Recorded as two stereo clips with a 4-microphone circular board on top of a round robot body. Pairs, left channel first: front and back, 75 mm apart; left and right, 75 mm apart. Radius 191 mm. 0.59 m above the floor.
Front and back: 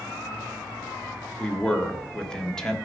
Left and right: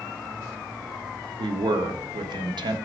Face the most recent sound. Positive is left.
turn(degrees=-80)